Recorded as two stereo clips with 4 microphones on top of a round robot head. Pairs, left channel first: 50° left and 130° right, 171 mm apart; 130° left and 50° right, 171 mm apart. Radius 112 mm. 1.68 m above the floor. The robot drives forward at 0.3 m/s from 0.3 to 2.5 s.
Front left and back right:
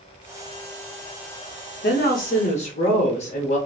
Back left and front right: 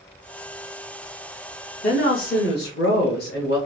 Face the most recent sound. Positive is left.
turn(degrees=100)